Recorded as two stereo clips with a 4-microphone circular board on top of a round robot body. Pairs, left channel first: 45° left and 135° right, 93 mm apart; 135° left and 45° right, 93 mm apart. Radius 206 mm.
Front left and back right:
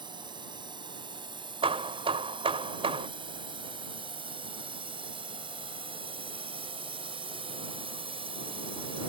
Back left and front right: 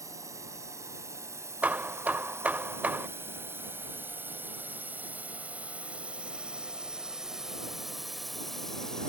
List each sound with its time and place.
0.0 s a drone: 100° right; by 9.1 s 140° right
1.6 s hammering: 115° right